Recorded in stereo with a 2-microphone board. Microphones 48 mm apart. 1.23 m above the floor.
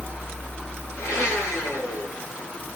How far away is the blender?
About 9 m.